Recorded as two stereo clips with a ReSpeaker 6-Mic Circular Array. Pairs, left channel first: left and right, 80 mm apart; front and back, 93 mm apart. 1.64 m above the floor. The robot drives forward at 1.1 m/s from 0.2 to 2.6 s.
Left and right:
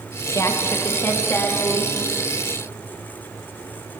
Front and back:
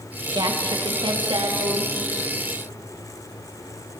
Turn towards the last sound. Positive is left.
turn(degrees=160)